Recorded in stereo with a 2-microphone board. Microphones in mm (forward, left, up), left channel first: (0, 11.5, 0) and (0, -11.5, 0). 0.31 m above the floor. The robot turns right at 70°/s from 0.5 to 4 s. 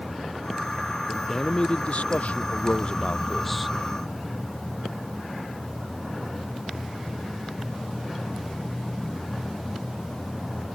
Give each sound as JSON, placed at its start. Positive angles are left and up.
{"t": 1.1, "sound": "a man speaking", "azimuth_deg": 5}